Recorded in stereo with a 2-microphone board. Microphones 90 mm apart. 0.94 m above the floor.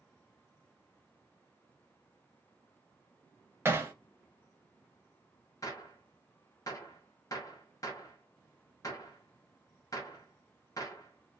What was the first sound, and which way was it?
Hammering, 25° right (ahead or behind).